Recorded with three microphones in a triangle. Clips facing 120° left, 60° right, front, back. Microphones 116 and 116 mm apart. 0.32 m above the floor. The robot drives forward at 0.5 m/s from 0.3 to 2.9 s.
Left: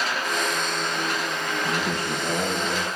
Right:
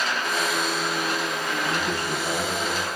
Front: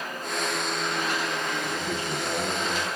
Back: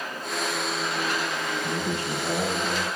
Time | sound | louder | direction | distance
1.6 | a man speaking | left 1 dB, back 2 dB | 170° right | 3 m